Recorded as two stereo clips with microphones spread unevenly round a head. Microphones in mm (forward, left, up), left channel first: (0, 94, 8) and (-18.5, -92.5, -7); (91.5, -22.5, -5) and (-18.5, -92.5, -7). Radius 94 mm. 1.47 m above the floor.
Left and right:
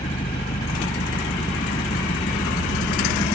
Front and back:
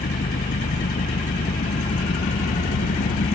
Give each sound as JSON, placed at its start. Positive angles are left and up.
{"t": 0.0, "sound": "an engine running", "azimuth_deg": 20}